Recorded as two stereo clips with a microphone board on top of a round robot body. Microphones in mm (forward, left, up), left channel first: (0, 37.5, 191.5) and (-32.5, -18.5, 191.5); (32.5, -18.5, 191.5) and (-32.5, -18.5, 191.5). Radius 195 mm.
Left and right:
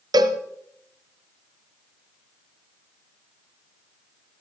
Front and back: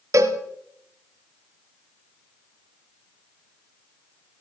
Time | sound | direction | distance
0.1 | a cowbell | 135° right | 1.2 m